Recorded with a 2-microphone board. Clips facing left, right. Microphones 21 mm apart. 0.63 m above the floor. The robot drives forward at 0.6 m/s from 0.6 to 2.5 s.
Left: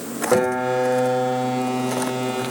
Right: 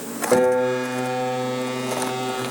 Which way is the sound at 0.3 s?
Centre (ahead or behind).